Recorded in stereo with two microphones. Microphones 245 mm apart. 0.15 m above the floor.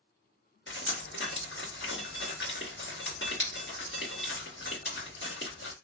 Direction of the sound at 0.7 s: 50° left (ahead or behind).